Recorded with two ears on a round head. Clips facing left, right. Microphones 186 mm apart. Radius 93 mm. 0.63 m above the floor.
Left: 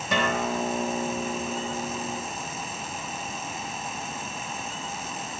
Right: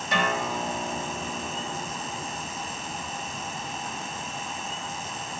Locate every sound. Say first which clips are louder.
0.1 s a guitar: left 2 dB; 75° left (ahead or behind), 4 m